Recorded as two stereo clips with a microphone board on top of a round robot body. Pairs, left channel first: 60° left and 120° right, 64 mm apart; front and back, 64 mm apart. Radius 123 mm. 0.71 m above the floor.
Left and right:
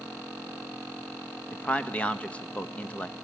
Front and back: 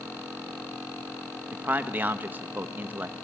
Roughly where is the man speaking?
Behind left.